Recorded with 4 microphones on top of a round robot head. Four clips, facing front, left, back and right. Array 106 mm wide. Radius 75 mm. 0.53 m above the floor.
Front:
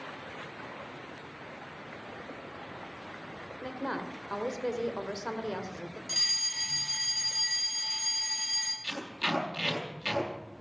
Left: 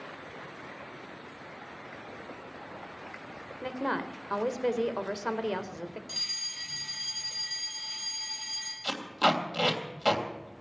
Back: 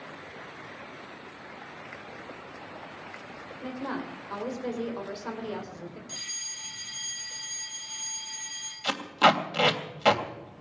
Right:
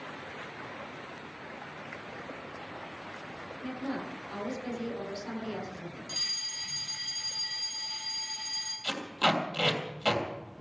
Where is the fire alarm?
Straight ahead, 8 m.